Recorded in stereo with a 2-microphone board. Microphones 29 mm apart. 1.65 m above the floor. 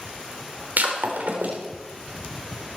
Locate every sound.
0.8 s breaking glass: 65° right (ahead or behind), 3.5 m